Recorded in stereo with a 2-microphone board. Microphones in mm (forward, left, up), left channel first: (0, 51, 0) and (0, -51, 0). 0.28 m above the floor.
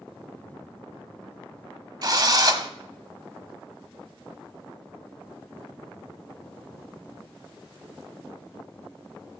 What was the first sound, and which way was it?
A drill, 40° right (ahead or behind).